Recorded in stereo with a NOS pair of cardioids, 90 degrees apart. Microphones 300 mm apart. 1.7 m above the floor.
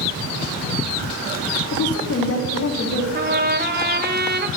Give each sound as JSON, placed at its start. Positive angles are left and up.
{"t": 1.7, "sound": "a woman speaking", "azimuth_deg": 55, "distance_m": 3.5}
{"t": 3.1, "sound": "a trumpet", "azimuth_deg": -35, "distance_m": 1.3}